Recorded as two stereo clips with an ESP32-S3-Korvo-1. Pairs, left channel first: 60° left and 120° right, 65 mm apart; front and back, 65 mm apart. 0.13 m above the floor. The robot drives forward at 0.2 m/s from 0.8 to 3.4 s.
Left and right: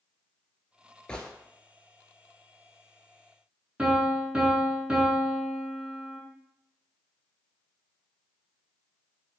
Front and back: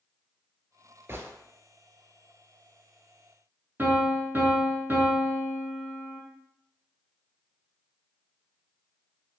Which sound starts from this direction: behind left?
A gunshot, at 1.1 s.